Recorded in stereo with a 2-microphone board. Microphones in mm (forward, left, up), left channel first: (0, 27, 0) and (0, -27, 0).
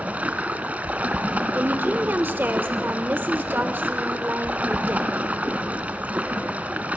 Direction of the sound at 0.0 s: 30° right (ahead or behind).